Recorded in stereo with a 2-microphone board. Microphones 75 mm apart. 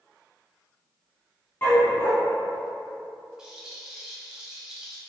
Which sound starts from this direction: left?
A dog barking, at 1.6 s.